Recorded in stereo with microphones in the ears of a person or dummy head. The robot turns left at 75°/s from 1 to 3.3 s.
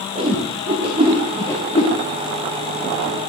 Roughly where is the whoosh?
Right.